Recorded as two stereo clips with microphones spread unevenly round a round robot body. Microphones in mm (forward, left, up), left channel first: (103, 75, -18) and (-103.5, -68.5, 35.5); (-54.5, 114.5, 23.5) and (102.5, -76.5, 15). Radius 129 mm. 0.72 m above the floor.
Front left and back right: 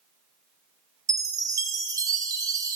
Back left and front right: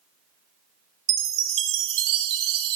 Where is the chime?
65° right, 0.8 m.